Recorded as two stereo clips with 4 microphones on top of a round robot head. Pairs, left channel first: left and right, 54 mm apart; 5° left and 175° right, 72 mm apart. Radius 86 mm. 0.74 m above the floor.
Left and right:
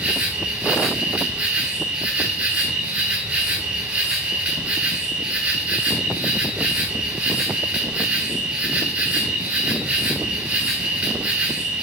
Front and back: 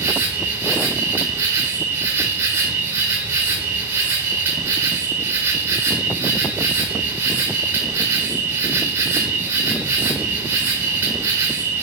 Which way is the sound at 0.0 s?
145° right.